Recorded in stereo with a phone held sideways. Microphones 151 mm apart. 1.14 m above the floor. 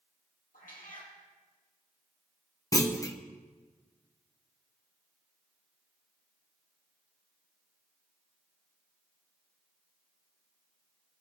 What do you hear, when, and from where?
0.5 s a cat meowing: 70° left (ahead or behind), 3.5 m
2.7 s a clunk: 25° left (ahead or behind), 0.8 m